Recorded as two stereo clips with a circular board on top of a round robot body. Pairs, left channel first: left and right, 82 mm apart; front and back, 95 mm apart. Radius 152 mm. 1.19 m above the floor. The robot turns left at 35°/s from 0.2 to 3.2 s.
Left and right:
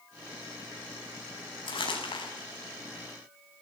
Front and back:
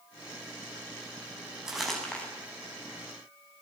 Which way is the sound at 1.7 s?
95° left.